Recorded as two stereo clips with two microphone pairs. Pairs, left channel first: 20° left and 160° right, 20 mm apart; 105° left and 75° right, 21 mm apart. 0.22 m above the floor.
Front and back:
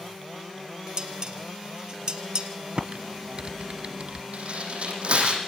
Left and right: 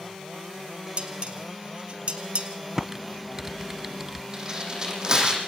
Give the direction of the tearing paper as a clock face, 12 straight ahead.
5 o'clock.